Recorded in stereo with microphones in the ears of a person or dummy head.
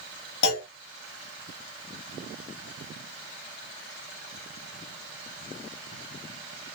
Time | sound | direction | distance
0.4 | a clunk | 60° left (ahead or behind) | 2 m